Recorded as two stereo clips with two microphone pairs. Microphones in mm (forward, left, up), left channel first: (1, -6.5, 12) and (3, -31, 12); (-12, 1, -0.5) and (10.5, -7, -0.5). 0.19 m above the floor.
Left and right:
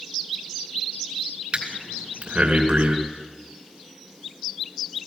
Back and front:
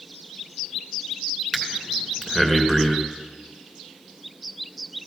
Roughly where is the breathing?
Behind right.